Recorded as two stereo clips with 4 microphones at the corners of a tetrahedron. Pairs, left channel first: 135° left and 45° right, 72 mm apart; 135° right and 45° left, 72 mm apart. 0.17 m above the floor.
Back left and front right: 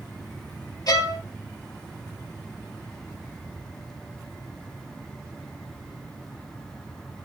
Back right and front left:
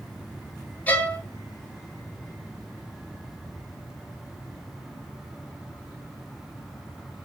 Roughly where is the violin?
Behind.